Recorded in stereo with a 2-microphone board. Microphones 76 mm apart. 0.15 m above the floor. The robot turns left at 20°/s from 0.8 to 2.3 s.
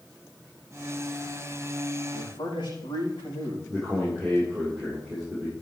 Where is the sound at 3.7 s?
Centre (ahead or behind), 6.5 m.